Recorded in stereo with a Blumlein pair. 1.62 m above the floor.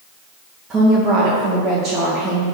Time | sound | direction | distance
0.7 | a woman speaking | 15° right | 2 m